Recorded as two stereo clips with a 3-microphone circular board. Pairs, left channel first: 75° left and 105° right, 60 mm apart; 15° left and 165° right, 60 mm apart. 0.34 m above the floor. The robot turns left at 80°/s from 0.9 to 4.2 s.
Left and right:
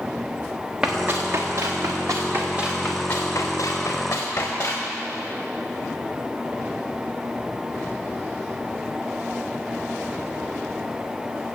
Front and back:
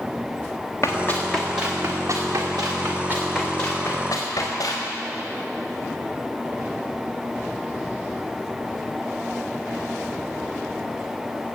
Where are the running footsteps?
25° right, 3 m; by 4.9 s 40° left, 5 m.